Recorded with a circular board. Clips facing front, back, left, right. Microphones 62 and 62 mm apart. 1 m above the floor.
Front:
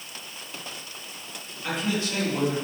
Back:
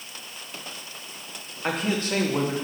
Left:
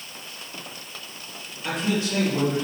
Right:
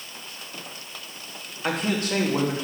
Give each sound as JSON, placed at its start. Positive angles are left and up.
{"t": 1.6, "sound": "a man speaking", "azimuth_deg": -130, "distance_m": 1.3}